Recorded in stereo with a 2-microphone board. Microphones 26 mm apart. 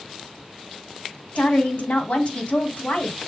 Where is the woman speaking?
65° left (ahead or behind), 2 m.